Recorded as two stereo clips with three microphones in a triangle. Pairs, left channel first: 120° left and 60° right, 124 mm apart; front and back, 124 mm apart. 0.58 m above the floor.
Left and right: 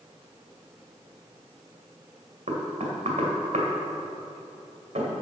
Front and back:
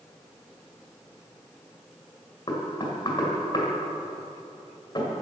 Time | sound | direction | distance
2.5 | knocking | 50° right | 2.5 m